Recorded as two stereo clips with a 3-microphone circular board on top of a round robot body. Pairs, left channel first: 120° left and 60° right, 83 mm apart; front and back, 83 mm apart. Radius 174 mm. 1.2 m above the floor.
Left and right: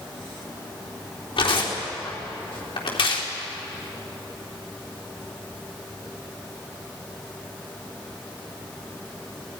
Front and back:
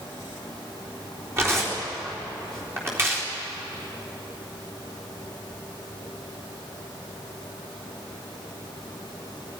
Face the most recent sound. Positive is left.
turn(degrees=120)